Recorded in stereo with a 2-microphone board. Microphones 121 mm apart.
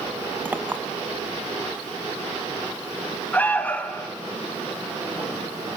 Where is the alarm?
15° left (ahead or behind), 1.2 m.